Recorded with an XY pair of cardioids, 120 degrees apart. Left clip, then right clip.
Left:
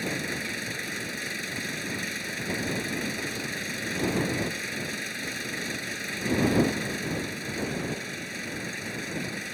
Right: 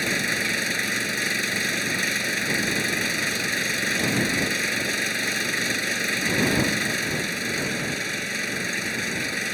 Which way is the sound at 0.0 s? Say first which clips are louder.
Right 7 dB; 45° right.